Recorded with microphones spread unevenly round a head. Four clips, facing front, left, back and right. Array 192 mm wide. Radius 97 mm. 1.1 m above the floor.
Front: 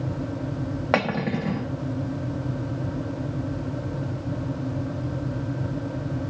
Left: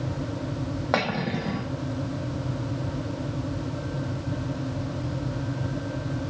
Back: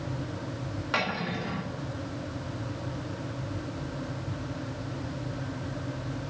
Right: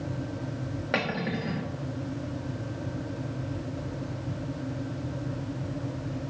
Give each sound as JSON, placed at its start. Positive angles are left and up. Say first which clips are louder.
{"t": 0.9, "sound": "cutlery clinking", "louder": "left 3 dB, front 7 dB", "azimuth_deg": 15, "distance_m": 0.9}